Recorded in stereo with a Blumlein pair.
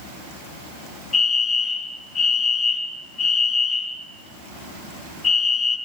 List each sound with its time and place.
1.1 s a fire alarm: 10° left, 3.5 m